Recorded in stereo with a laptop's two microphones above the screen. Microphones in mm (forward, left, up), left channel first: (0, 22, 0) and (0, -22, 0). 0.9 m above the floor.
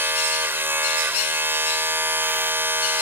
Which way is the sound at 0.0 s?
60° right (ahead or behind).